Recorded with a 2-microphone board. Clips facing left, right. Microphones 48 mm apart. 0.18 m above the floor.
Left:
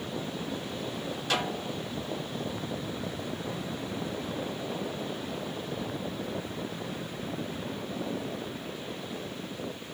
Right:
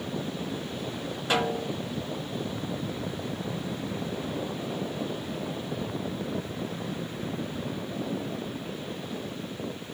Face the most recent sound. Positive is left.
turn(degrees=-20)  # may be behind; listen again after turning